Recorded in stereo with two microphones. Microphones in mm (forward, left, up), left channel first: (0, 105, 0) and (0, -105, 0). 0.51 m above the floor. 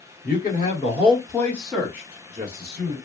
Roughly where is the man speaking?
Left.